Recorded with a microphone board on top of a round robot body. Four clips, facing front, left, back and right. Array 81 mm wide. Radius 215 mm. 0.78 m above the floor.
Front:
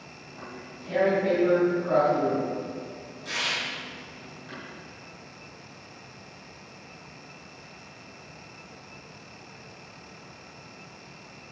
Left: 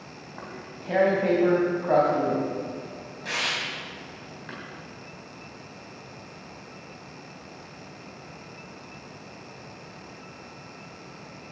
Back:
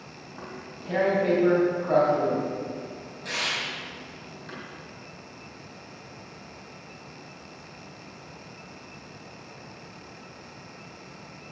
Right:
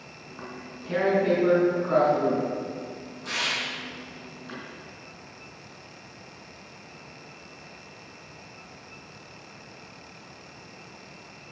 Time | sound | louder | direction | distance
0.3 | tearing paper | right 1 dB, back 1 dB | 110° left | 3.5 m